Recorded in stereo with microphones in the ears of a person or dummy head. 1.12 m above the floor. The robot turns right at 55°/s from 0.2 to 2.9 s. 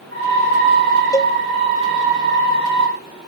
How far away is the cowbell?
About 0.5 m.